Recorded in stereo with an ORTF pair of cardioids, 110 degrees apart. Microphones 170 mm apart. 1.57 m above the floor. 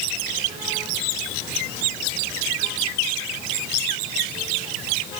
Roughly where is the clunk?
No clunk in this recording.